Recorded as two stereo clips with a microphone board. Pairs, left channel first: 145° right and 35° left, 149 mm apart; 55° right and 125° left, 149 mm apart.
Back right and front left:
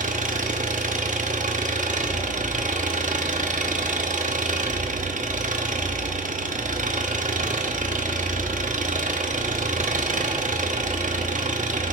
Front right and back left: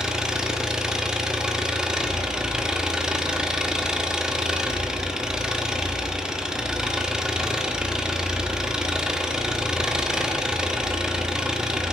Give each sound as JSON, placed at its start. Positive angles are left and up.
{"t": 0.0, "sound": "an engine running", "azimuth_deg": 40, "distance_m": 0.8}